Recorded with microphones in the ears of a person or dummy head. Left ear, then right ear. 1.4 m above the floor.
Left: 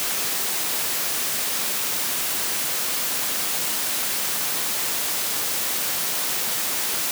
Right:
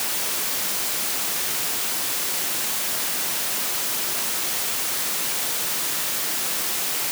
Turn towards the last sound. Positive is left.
No sound to turn to.